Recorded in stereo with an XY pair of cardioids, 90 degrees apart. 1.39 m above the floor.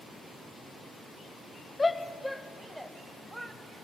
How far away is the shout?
About 1.4 m.